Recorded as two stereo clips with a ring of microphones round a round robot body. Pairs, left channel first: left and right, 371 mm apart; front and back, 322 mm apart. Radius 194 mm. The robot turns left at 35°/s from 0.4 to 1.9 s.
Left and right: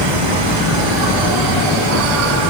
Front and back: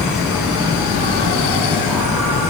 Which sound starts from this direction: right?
An insect, at 0.0 s.